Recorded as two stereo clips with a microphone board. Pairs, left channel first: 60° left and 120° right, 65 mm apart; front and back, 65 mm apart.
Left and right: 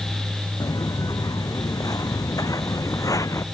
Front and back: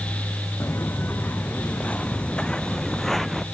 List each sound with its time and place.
0.6 s footsteps: 55° left; by 3.4 s 90° left